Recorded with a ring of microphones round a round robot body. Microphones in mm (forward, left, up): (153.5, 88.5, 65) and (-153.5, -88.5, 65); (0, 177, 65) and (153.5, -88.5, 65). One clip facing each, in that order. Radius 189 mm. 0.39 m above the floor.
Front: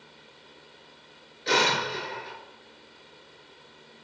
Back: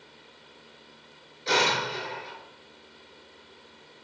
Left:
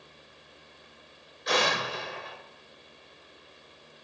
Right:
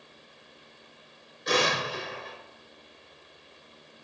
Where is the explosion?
30° right, 1.4 m.